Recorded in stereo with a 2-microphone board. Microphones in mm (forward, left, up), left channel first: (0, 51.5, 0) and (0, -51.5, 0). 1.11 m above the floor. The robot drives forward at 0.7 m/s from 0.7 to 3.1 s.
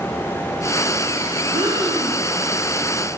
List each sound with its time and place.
1.5 s breathing: 50° right (ahead or behind), 1.9 m; by 2.2 s 45° right (ahead or behind), 2 m